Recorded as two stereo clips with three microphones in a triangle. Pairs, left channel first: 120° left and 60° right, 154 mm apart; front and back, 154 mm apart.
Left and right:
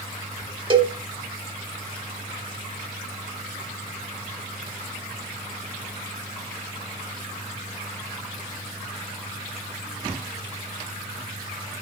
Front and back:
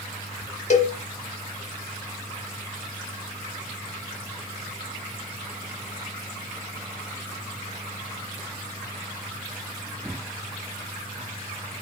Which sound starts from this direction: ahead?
A cowbell, at 0.7 s.